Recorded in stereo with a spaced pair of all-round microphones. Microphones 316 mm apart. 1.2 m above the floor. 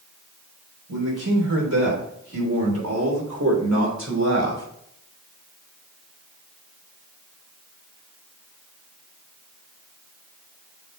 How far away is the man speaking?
About 3.5 m.